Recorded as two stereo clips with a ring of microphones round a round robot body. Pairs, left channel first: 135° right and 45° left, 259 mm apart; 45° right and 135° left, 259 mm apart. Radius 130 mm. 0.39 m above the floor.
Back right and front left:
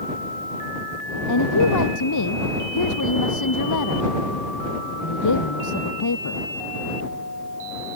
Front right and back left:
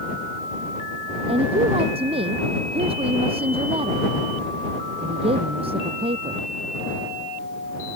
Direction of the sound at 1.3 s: 155° right.